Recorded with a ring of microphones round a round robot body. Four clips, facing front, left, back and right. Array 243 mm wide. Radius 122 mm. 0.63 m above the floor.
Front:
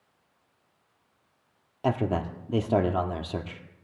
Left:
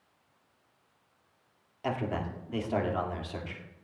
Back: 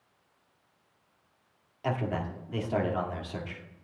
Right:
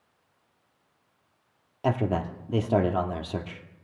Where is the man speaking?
45° right, 1.7 m.